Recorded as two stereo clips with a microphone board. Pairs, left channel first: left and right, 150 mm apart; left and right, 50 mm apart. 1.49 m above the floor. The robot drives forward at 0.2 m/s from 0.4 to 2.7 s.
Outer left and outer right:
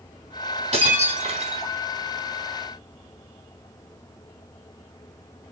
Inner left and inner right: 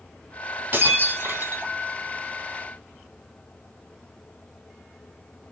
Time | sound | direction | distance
0.7 | breaking glass | 45° right (ahead or behind) | 2.5 m